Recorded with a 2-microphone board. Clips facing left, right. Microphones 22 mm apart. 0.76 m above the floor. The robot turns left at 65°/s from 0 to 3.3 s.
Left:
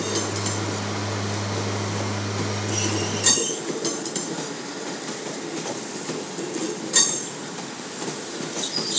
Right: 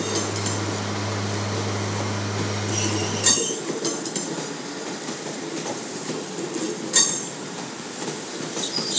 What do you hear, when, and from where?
Only background noise.